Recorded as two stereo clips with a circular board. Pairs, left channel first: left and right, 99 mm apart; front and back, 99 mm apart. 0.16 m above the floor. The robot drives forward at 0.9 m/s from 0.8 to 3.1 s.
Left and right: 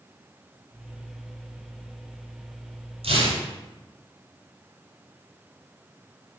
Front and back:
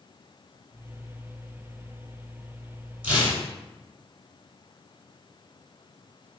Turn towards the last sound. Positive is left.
turn(degrees=-105)